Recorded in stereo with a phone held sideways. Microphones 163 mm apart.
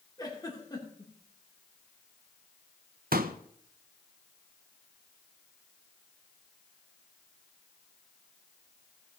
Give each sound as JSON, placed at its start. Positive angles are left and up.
{"t": 0.2, "sound": "a giggle", "side_deg": 25, "distance_m": 2.5}
{"t": 3.1, "sound": "a pop", "side_deg": -65, "distance_m": 0.8}